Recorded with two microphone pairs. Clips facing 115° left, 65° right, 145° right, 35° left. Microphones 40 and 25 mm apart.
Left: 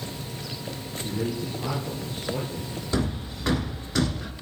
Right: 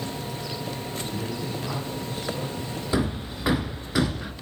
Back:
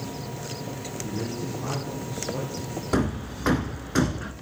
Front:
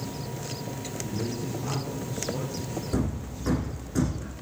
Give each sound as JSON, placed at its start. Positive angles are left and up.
{"t": 1.0, "sound": "a man speaking", "azimuth_deg": 165, "distance_m": 4.0}
{"t": 2.9, "sound": "hammering", "azimuth_deg": -140, "distance_m": 0.9}